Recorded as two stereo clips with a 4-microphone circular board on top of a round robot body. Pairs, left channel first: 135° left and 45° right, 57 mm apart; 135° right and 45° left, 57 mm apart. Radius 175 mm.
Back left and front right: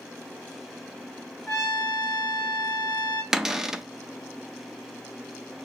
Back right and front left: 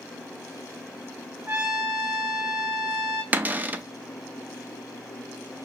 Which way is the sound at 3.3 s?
30° left.